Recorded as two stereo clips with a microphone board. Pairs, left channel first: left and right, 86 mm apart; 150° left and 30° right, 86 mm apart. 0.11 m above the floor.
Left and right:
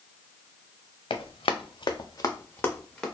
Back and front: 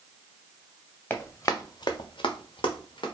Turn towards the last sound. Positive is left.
turn(degrees=175)